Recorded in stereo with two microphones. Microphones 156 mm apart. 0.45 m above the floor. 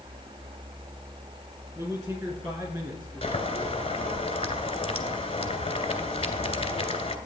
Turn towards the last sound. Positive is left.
turn(degrees=40)  # may be behind; listen again after turning